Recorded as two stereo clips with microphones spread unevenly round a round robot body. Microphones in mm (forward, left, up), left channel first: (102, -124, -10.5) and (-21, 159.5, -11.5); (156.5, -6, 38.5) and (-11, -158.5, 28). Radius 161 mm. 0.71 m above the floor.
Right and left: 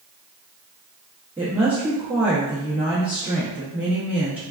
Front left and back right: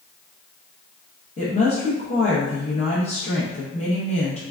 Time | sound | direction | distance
1.4 | a woman speaking | 35° left | 1.1 m